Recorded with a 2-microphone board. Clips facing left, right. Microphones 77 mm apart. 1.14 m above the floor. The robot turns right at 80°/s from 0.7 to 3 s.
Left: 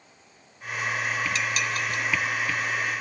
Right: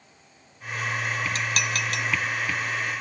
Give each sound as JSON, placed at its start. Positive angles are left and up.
{"t": 1.4, "sound": "dishes clattering", "side_deg": -40, "distance_m": 1.0}